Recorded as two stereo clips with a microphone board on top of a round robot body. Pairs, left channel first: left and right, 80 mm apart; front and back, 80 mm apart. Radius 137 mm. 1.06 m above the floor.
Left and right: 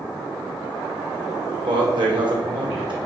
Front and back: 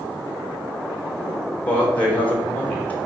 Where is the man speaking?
75° right, 2.5 m.